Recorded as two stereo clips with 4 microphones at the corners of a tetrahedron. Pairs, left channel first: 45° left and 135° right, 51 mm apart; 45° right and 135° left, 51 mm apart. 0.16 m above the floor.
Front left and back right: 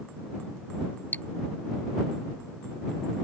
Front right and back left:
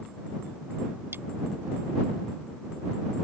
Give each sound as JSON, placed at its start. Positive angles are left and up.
{"t": 1.1, "sound": "cutlery clinking", "azimuth_deg": 100}